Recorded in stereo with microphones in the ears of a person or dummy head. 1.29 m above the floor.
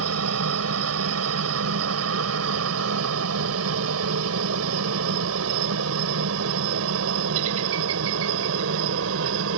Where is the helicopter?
80° right; by 9.6 s 70° right (ahead or behind).